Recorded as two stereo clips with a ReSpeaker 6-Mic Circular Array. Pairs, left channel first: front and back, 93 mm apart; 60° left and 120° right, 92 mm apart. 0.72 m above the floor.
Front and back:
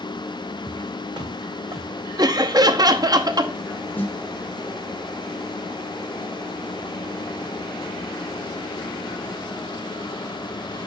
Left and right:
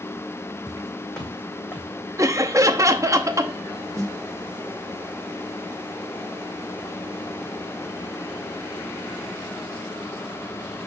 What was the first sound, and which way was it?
Footsteps, 155° left.